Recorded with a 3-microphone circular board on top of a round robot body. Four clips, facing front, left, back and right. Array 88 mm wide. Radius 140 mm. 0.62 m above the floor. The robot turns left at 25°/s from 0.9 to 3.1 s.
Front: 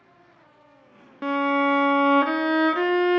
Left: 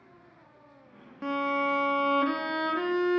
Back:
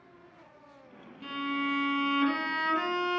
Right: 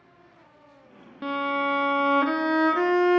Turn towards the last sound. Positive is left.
turn(degrees=-55)